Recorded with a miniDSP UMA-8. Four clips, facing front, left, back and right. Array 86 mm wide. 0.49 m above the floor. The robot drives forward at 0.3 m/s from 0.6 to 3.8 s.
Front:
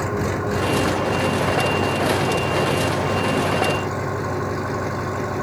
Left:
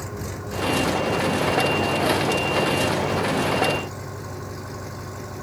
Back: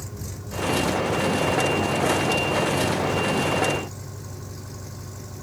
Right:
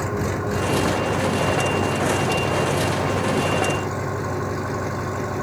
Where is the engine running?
30° right.